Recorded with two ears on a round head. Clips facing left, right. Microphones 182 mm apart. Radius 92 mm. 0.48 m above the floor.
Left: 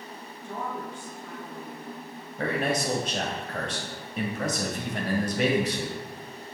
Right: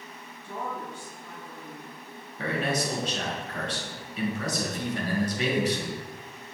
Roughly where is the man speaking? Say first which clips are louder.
Left 2 dB; left.